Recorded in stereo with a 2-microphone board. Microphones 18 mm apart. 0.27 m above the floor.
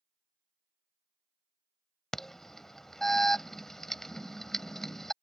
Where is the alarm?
25° left (ahead or behind).